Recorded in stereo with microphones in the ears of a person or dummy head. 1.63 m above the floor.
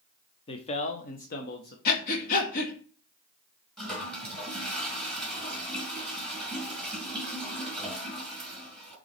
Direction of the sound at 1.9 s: 45° left (ahead or behind).